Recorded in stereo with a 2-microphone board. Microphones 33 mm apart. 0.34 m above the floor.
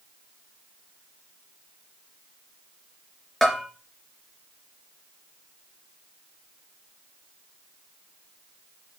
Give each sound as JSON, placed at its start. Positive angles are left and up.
{"t": 3.4, "sound": "a bell", "side_deg": 15, "distance_m": 3.0}